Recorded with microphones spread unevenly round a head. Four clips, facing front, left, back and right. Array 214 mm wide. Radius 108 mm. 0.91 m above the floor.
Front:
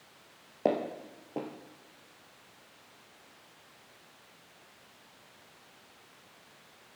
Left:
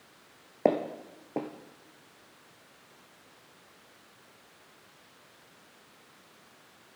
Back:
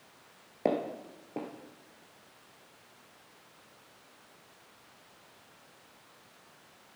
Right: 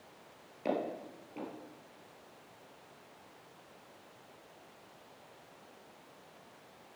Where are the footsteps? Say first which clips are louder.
Left 8 dB, front 1 dB; 95° left, 1.3 m.